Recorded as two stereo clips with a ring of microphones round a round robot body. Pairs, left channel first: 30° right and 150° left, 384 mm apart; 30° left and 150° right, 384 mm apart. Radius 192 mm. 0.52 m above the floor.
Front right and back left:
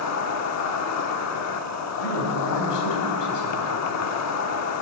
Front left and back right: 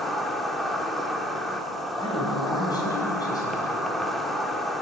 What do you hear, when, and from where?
0.0 s an insect: 60° right, 0.9 m
2.0 s a man speaking: 50° right, 4 m